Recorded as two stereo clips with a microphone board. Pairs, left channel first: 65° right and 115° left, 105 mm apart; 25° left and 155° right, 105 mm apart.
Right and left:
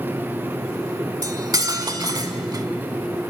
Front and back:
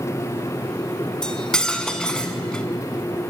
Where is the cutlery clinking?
100° left, 0.7 m.